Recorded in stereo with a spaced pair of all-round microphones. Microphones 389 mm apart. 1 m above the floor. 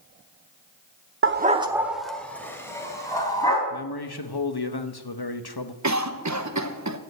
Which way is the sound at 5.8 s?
45° right (ahead or behind).